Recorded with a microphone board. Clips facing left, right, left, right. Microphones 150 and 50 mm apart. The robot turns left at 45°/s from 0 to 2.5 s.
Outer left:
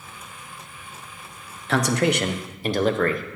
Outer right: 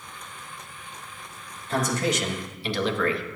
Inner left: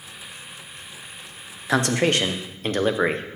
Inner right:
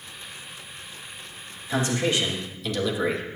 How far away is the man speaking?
About 0.6 m.